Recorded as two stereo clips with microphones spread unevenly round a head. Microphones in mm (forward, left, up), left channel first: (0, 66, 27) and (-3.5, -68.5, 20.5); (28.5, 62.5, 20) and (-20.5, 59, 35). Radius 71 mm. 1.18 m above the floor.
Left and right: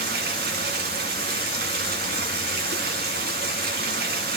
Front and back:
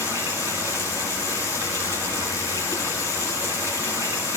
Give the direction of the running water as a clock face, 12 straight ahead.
4 o'clock.